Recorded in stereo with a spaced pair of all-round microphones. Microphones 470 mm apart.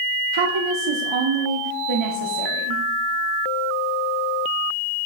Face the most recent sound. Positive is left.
turn(degrees=-75)  # may be behind; listen again after turning